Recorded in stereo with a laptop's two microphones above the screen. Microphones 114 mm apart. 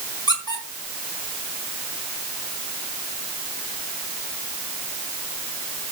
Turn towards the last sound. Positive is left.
turn(degrees=35)  # may be behind; listen again after turning